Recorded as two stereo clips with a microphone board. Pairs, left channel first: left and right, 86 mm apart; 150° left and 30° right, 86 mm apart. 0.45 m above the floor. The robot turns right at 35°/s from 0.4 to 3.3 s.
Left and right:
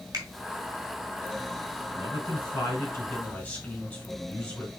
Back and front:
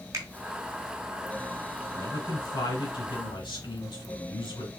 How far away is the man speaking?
About 2.5 m.